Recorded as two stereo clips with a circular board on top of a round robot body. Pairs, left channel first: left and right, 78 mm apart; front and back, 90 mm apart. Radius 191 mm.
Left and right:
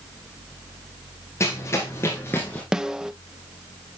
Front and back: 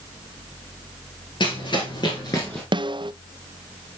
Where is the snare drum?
170° right, 0.7 m.